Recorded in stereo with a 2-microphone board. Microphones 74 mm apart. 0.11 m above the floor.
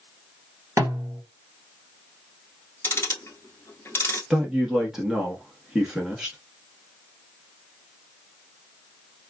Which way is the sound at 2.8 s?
35° left (ahead or behind).